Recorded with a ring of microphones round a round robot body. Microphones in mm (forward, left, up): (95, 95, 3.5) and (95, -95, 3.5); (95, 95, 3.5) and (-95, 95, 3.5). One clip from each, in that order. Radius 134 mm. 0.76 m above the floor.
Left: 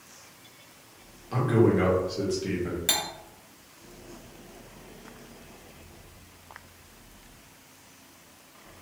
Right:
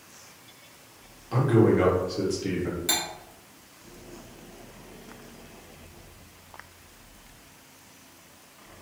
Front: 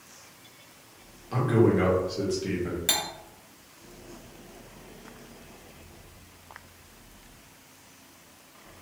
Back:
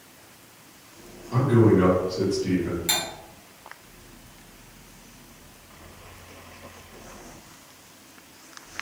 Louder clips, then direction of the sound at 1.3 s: Right 2 dB, back 3 dB; 5° right.